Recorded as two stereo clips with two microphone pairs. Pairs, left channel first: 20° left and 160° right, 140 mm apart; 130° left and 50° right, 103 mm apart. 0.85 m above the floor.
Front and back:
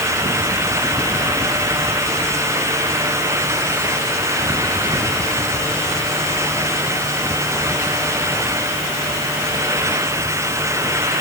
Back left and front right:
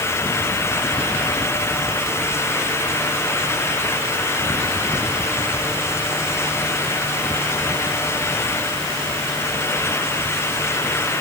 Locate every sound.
Only background noise.